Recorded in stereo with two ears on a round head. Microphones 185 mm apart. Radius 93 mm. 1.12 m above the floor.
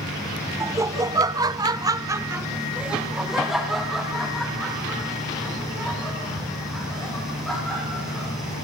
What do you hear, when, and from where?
0.6 s laughter: 15° right (ahead or behind), 1.1 m; by 8.3 s 5° left (ahead or behind), 5 m